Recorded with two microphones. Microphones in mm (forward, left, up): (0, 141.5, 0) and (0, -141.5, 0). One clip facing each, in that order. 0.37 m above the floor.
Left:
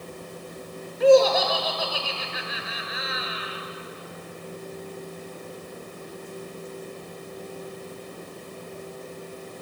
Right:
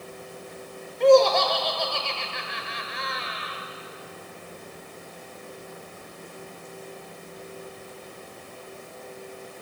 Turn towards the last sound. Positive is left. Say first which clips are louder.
# even
turn(degrees=5)  # may be behind; listen again after turning